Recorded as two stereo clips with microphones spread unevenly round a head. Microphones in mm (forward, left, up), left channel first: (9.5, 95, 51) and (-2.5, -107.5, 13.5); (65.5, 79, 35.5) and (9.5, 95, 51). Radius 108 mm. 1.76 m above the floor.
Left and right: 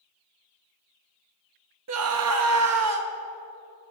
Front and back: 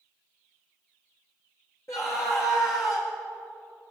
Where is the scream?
80° right, 0.9 m.